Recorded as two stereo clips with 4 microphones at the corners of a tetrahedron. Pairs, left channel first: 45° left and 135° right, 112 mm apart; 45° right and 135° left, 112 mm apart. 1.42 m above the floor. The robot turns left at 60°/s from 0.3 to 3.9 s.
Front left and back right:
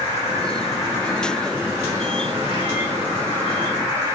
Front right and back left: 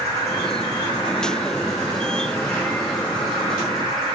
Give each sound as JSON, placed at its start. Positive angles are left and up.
{"t": 0.0, "sound": "an insect", "azimuth_deg": 20, "distance_m": 3.5}